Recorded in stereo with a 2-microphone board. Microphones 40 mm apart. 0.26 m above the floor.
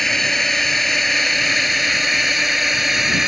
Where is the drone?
10° left (ahead or behind); by 3.3 s 5° right (ahead or behind).